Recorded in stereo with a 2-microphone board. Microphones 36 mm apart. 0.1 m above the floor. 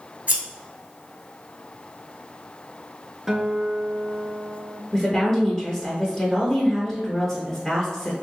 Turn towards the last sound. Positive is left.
turn(degrees=15)  # may be behind; listen again after turning